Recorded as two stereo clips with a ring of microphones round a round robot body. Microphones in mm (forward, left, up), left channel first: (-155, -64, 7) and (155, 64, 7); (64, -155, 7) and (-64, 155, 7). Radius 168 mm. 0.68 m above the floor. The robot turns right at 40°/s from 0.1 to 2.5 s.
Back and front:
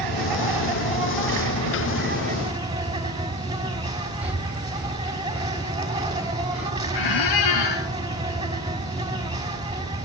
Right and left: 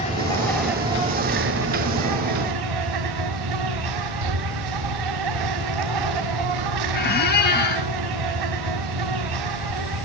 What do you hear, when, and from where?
0.0 s an insect: 5° left, 5 m; by 10.1 s 100° left, 5 m
4.2 s breathing: 110° left, 1.1 m
6.9 s a squeak: 130° right, 3 m